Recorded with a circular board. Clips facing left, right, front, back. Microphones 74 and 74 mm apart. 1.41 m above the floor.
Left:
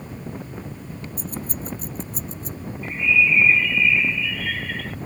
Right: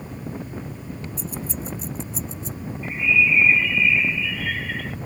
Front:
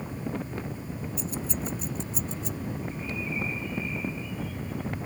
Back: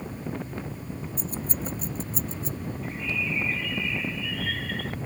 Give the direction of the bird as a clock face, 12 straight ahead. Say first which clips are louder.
Even, back 3 dB; 6 o'clock.